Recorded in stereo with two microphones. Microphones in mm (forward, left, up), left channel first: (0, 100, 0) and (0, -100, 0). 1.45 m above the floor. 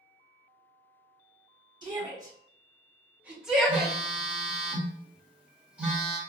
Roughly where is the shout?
Right.